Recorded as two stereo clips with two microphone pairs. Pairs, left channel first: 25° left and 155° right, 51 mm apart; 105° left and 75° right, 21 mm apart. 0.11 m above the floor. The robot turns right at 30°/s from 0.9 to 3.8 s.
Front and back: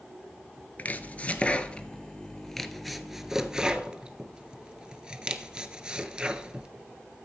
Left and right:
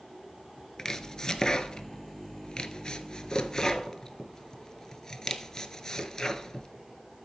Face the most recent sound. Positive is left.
turn(degrees=140)